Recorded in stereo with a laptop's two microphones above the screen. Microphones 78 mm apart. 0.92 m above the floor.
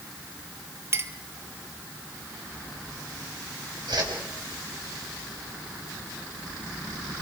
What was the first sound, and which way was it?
A clink, 35° right (ahead or behind).